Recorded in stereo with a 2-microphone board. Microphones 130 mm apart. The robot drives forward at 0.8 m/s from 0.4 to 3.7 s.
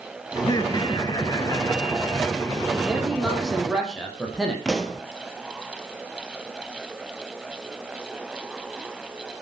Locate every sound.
0.4 s laughter: 35° left (ahead or behind), 1.3 m; by 2.7 s 20° left (ahead or behind), 2.5 m
2.8 s a man speaking: centre (ahead or behind), 6 m
4.7 s a pop: centre (ahead or behind), 1.8 m